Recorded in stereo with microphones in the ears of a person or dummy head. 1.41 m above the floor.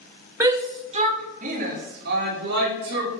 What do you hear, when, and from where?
0.4 s a shout: 10° right (ahead or behind), 0.7 m; by 3.1 s 60° right (ahead or behind), 2 m